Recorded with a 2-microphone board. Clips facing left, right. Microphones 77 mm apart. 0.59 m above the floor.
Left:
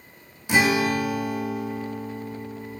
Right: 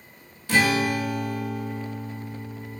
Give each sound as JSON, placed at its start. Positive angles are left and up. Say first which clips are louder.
{"t": 0.5, "sound": "a guitar", "louder": "left 1 dB", "side_deg": 20, "distance_m": 0.9}